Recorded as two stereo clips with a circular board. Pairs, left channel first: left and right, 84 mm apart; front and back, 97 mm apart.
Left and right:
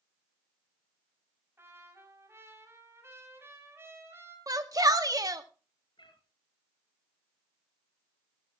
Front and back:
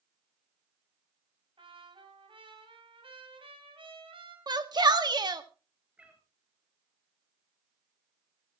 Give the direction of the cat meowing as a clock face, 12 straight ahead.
9 o'clock.